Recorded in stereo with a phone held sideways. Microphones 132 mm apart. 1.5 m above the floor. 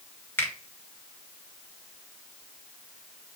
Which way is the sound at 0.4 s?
15° left (ahead or behind).